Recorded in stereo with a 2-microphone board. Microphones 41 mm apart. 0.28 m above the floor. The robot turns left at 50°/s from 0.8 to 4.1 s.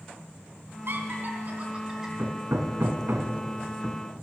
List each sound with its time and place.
0.9 s laughter: 60° right (ahead or behind), 3 m; by 2.1 s 10° right (ahead or behind), 3 m
2.2 s hammering: 65° right (ahead or behind), 1.4 m; by 4.0 s 10° right (ahead or behind), 1.4 m